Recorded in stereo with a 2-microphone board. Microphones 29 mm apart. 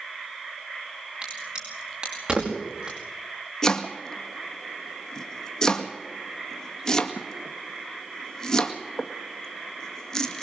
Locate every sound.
1.2 s a crack: 35° right (ahead or behind), 5.5 m
3.6 s chopping: 20° left (ahead or behind), 1.7 m